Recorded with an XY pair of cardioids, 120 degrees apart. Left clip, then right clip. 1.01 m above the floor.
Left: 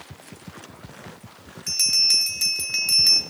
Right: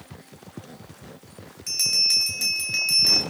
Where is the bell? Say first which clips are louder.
Left 2 dB; 10° left, 1.7 m.